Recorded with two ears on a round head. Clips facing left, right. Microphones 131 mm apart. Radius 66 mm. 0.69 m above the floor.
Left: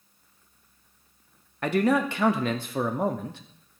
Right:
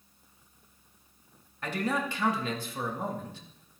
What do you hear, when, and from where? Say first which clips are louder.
1.6 s a man speaking: left 8 dB; 50° left (ahead or behind), 0.8 m